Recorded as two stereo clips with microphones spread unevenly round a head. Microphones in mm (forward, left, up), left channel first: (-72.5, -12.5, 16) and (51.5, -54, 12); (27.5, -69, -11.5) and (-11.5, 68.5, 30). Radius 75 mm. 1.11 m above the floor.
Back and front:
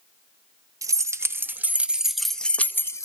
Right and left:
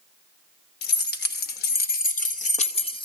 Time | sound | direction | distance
0.8 | keys jangling | 85° right | 1.7 m